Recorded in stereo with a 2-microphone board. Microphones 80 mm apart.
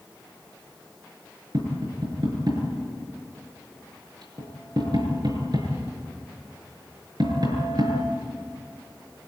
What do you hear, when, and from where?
1.5 s tapping: 60° right (ahead or behind), 6.5 m